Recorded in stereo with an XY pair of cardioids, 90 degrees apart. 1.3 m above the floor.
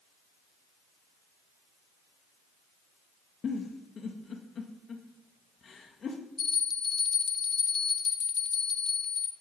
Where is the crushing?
No crushing in this recording.